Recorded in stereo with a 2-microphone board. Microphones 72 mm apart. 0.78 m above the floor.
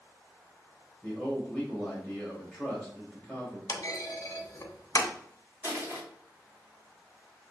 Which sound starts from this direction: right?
Crushing, at 5.6 s.